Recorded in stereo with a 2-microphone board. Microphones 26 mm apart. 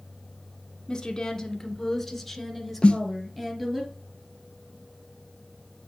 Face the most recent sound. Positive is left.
turn(degrees=40)  # may be behind; listen again after turning